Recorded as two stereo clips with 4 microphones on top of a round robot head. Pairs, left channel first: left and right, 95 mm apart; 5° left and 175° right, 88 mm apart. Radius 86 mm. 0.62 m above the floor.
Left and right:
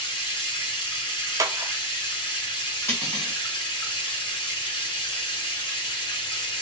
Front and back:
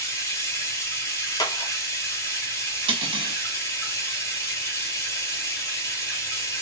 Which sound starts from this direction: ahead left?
Running water, at 0.0 s.